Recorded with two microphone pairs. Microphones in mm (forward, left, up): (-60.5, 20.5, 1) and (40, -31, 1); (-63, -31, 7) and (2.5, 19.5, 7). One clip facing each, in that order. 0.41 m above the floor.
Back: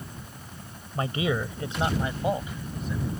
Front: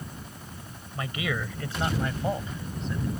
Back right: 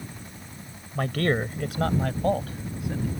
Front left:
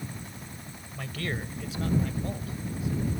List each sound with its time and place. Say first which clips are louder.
0.9 s a man speaking: back 5 dB, back right 10 dB; 155° right; by 3.1 s 125° right